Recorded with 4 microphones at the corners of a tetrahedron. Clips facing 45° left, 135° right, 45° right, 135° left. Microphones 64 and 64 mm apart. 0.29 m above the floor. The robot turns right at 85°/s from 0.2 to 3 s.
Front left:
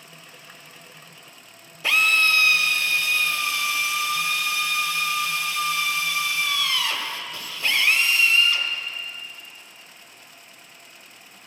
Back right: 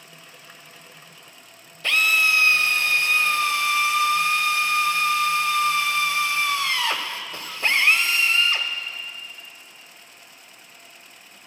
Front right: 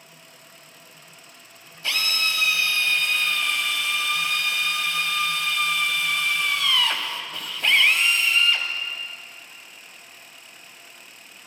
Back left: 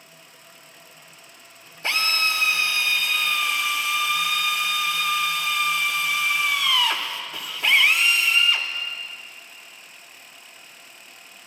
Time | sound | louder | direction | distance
1.8 | a drill | even, back left 3 dB | 120° left | 0.8 m